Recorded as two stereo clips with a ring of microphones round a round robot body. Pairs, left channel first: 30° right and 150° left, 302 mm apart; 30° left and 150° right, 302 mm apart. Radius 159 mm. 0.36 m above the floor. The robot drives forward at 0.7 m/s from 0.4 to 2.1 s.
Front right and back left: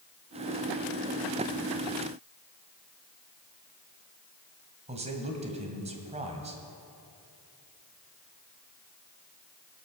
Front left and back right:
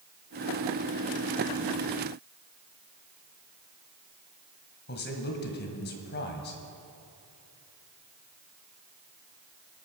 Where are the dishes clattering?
I don't hear dishes clattering.